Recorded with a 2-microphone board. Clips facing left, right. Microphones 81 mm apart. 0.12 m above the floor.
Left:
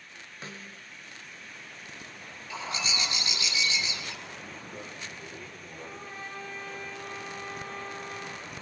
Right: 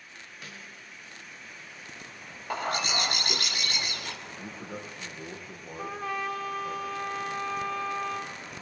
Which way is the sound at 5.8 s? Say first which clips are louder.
Right 10 dB; 80° right.